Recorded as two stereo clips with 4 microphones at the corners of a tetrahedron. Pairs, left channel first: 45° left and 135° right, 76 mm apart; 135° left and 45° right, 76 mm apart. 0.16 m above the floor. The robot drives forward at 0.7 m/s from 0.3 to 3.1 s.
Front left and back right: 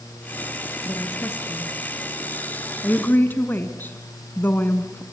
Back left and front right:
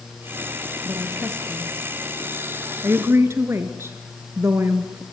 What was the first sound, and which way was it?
A woman speaking, 5° right.